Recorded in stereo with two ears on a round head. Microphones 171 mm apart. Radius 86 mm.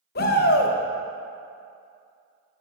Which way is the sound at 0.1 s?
50° left (ahead or behind).